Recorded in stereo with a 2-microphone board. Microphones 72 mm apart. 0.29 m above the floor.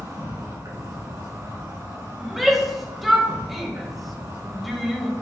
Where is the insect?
55° right (ahead or behind), 2.5 m.